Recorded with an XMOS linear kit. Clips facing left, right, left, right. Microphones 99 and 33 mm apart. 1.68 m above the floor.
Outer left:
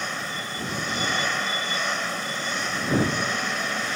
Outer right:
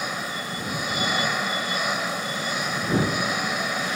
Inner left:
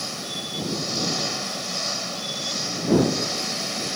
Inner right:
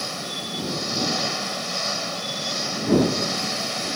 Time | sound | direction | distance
0.0 | an engine running | 10° right (ahead or behind) | ?